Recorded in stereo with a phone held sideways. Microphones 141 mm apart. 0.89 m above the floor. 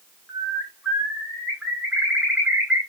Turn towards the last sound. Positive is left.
turn(degrees=-10)  # may be behind; listen again after turning